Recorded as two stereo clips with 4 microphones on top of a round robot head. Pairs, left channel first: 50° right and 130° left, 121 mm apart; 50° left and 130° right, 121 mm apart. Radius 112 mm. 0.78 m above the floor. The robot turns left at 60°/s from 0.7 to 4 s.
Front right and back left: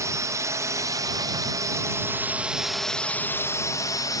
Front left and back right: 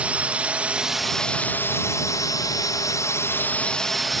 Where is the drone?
160° left; by 4.2 s 35° right.